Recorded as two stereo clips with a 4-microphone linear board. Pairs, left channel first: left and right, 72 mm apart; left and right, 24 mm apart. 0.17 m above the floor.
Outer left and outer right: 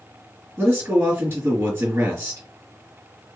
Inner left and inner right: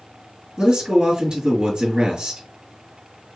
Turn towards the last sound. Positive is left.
turn(degrees=-25)  # may be behind; listen again after turning